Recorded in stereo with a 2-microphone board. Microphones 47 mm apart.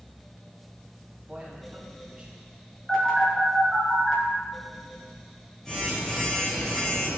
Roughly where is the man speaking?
Centre.